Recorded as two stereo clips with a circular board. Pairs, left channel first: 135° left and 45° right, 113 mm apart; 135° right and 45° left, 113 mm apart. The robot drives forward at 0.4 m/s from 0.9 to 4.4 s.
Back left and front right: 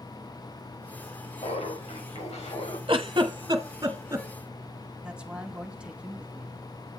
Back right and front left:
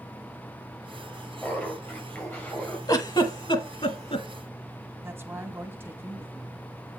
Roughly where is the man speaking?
Ahead.